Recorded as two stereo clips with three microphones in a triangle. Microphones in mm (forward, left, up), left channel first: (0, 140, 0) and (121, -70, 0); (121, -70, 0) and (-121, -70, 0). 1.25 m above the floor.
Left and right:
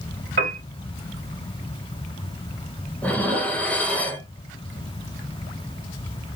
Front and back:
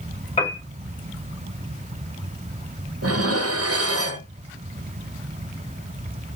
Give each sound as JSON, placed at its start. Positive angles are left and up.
{"t": 0.4, "sound": "a piano", "azimuth_deg": -60, "distance_m": 1.5}
{"t": 3.0, "sound": "dishes clattering", "azimuth_deg": -155, "distance_m": 0.6}